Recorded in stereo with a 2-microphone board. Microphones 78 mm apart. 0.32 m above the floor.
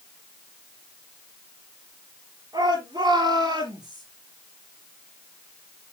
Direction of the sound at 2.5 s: 65° right (ahead or behind).